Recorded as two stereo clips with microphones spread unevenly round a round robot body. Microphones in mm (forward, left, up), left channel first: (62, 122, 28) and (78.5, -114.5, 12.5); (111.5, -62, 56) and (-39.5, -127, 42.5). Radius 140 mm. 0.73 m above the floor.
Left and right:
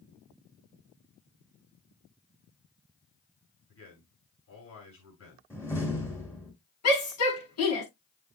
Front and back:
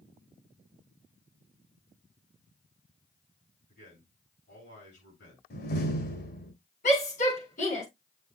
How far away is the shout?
About 7 m.